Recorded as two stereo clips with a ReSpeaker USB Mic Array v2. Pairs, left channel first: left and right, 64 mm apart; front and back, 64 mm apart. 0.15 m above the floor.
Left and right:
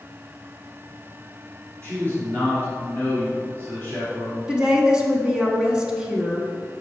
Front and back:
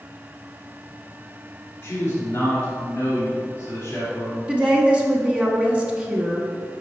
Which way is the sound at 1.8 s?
55° right.